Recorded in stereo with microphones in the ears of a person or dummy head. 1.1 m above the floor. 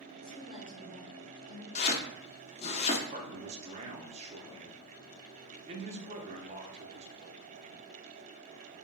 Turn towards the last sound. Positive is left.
turn(degrees=-30)  # may be behind; listen again after turning